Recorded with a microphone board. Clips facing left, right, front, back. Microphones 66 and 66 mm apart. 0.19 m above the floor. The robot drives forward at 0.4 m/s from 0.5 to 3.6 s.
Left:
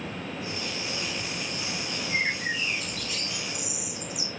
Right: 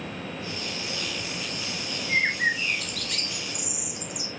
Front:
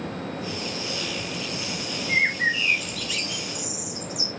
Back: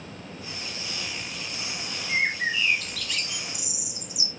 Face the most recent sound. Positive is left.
turn(degrees=-105)